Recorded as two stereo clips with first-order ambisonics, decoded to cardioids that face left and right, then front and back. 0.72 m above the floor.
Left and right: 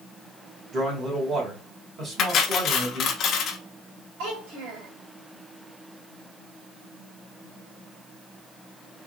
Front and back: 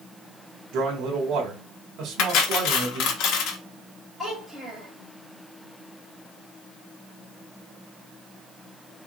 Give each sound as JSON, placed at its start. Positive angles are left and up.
{"t": 0.7, "sound": "a man speaking", "azimuth_deg": -150, "distance_m": 1.6}
{"t": 2.2, "sound": "cutlery clinking", "azimuth_deg": 35, "distance_m": 0.7}
{"t": 4.2, "sound": "a child speaking", "azimuth_deg": -75, "distance_m": 2.5}